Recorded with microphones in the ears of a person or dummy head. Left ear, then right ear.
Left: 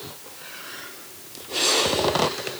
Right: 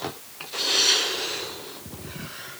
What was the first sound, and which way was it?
Only background noise.